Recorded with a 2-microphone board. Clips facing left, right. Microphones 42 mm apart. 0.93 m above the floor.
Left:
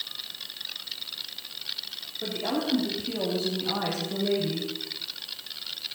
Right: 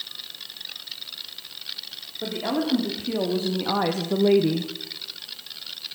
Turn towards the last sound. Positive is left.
turn(degrees=-65)  # may be behind; listen again after turning